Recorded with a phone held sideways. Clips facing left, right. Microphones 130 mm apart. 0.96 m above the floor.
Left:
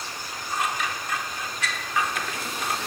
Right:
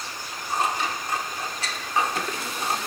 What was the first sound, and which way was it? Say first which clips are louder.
Scissors: right 3 dB; 35° right (ahead or behind).